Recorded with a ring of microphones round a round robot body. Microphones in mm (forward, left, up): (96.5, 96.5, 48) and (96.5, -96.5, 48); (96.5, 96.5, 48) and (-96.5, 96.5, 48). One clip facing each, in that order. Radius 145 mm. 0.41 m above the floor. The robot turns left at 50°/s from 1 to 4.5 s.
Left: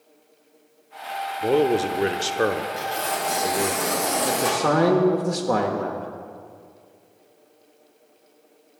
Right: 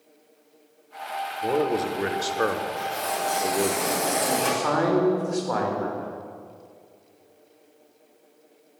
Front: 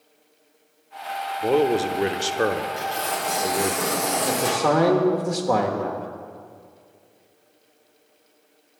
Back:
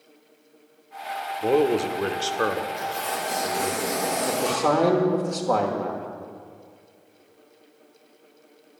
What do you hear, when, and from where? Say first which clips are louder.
1.4 s a man speaking: left 4 dB, even; 100° left, 0.9 m; by 3.8 s 20° right, 0.9 m
2.8 s tearing paper: left 1 dB, front 2 dB; 50° left, 3.5 m; by 4.6 s 35° right, 3.5 m
4.2 s a man speaking: left 2 dB, front 1 dB; 90° left, 1.3 m; by 6.1 s 80° left, 1.3 m